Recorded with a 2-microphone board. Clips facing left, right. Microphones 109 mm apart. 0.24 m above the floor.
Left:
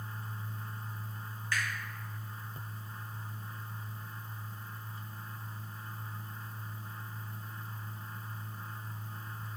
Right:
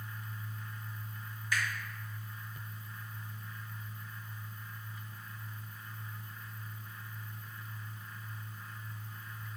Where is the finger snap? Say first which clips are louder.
Even; 15° right (ahead or behind), 1.4 m.